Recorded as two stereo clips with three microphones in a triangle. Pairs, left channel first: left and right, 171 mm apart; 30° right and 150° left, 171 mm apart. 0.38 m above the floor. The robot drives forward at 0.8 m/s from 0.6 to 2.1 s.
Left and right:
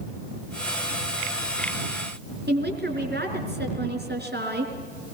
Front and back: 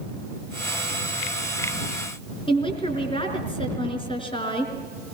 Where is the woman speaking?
90° right, 4.5 m.